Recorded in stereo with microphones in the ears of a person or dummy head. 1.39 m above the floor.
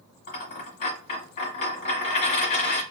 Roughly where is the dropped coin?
Left.